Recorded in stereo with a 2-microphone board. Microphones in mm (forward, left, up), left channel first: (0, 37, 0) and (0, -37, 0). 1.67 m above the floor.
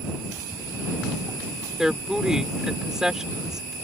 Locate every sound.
1.8 s a woman speaking: 10° right (ahead or behind)